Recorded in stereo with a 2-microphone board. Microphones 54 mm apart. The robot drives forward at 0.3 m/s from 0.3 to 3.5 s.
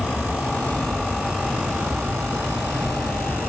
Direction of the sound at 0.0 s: 10° right (ahead or behind).